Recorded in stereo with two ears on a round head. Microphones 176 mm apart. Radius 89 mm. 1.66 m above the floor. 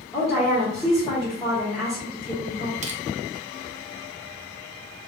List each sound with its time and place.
0.1 s a woman speaking: centre (ahead or behind), 1.4 m
2.8 s crushing: 35° right (ahead or behind), 0.7 m